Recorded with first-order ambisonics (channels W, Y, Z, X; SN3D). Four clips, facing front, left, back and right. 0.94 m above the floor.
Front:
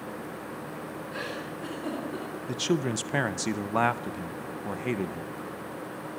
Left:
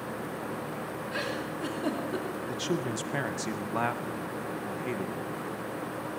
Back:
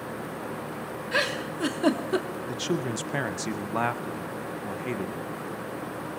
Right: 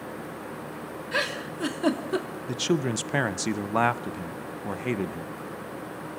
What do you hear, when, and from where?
1.1 s a giggle: 145° right, 2 m
2.5 s a man speaking: 70° right, 0.5 m